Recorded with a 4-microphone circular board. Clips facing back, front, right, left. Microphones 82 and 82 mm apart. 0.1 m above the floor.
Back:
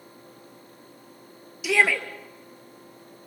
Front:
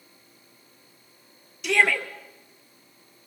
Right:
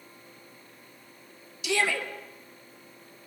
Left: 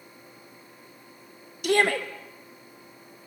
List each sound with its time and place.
1.6 s a shout: 95° left, 2.0 m